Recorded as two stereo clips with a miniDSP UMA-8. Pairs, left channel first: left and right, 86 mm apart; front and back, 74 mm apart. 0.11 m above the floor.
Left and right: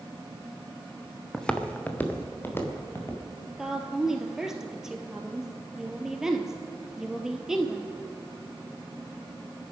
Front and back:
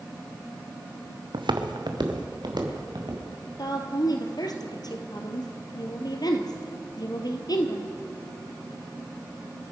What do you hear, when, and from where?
1.3 s footsteps: 175° left, 1.4 m; by 3.2 s 155° left, 4 m
3.6 s a woman speaking: 5° right, 2 m